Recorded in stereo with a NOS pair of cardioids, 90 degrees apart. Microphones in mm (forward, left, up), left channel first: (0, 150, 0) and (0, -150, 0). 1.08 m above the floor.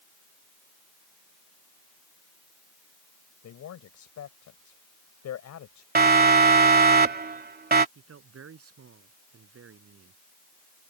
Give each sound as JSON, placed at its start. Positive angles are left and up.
{"t": 3.4, "sound": "a man speaking", "azimuth_deg": 65}
{"t": 6.0, "sound": "a siren", "azimuth_deg": -30}
{"t": 8.0, "sound": "a man speaking", "azimuth_deg": -50}